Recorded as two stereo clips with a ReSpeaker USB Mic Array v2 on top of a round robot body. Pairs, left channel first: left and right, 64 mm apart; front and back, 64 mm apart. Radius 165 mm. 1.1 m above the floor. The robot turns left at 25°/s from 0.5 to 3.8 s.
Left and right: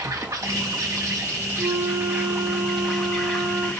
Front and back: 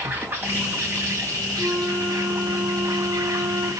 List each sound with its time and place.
0.0 s an insect: 120° right, 5 m; by 3.8 s 155° left, 5 m
1.6 s a flute: 115° right, 2.0 m; by 3.7 s 170° right, 2.0 m